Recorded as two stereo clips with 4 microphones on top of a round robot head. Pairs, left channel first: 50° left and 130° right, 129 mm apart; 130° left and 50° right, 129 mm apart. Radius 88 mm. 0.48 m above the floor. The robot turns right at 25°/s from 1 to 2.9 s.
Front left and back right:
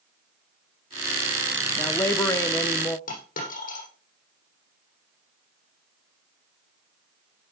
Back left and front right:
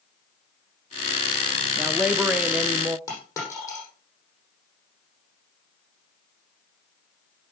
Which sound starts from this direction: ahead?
A woman speaking, at 1.8 s.